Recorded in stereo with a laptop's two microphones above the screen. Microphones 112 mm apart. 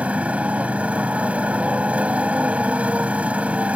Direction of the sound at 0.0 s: 10° right (ahead or behind).